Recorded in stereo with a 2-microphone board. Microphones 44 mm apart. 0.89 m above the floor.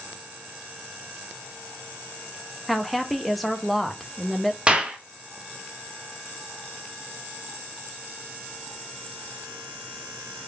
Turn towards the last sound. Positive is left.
turn(degrees=-25)  # may be behind; listen again after turning